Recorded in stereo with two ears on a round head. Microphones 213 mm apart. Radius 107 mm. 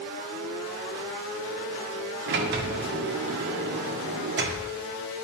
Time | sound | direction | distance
2.3 | a sliding door | 50° right (ahead or behind) | 0.9 m